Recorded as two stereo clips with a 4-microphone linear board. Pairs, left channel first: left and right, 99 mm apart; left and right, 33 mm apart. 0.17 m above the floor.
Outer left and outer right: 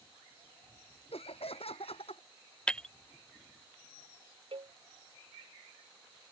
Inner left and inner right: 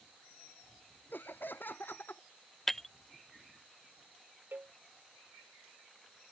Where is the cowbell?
65° right (ahead or behind).